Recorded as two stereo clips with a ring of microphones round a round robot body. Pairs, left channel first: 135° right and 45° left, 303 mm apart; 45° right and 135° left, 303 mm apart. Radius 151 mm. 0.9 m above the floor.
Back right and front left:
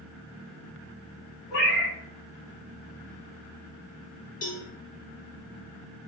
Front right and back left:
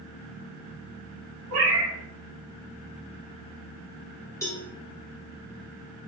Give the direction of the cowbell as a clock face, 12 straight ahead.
4 o'clock.